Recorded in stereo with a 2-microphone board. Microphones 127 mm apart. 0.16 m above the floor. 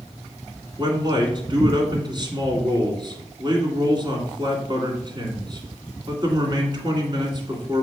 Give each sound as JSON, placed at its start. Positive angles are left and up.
{"t": 0.8, "sound": "a man speaking", "side_deg": -35, "distance_m": 2.0}